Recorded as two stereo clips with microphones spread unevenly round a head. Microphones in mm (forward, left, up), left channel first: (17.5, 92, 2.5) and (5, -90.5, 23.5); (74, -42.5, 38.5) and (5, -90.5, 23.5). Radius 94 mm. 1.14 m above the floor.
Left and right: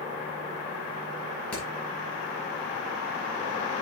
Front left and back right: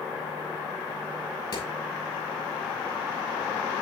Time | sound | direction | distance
1.5 | hammering | straight ahead | 6 m